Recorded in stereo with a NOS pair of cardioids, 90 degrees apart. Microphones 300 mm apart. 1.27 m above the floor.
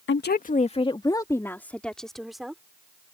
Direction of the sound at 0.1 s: 40° left.